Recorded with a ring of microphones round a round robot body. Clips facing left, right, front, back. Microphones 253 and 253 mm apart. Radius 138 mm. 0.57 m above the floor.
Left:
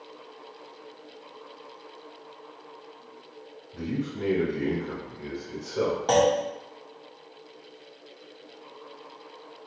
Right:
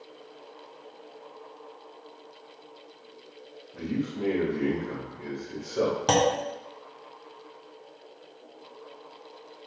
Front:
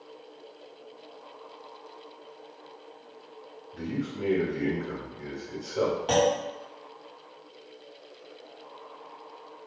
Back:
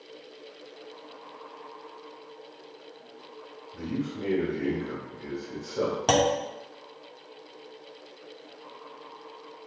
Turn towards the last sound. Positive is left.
turn(degrees=-145)